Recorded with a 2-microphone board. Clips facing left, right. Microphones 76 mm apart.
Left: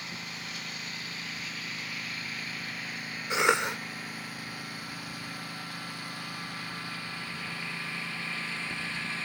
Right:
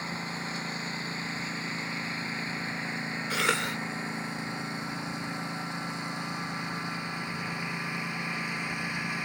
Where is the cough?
20° left (ahead or behind).